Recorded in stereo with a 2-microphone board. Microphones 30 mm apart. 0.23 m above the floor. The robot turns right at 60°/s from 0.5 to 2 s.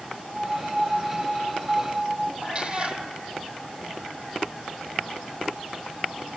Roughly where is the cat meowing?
Right.